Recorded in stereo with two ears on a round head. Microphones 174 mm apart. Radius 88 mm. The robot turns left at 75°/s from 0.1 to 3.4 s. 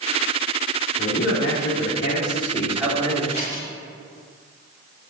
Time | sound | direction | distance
1.0 | a man speaking | 135° left | 3 m
3.3 | scissors | 10° right (ahead or behind) | 4 m